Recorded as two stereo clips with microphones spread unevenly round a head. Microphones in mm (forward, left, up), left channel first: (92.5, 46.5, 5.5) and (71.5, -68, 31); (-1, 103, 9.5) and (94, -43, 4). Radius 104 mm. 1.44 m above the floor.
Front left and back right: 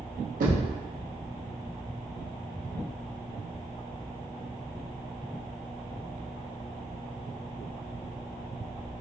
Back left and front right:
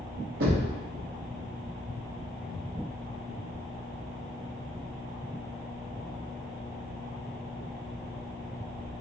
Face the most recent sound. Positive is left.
turn(degrees=-90)